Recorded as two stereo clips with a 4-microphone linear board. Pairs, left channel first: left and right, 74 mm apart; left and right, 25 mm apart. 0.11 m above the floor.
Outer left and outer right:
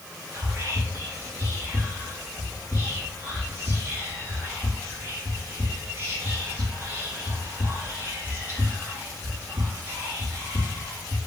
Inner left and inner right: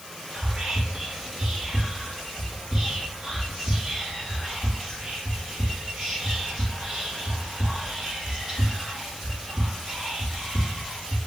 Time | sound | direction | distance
0.3 | whispering | 30° right (ahead or behind) | 1.4 m